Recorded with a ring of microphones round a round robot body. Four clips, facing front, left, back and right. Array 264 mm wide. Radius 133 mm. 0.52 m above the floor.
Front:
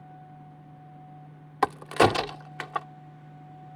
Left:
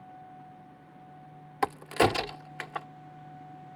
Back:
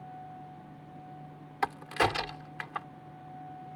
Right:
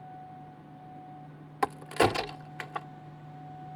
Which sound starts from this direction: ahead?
A crack, at 1.6 s.